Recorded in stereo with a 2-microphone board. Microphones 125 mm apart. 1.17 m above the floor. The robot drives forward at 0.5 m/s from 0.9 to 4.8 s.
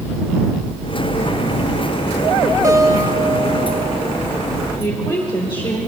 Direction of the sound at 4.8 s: 40° left (ahead or behind).